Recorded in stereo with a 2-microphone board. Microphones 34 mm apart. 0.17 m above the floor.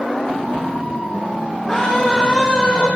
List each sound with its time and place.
1.7 s a scream: 5° left (ahead or behind), 3.5 m; by 2.9 s 30° left (ahead or behind), 4 m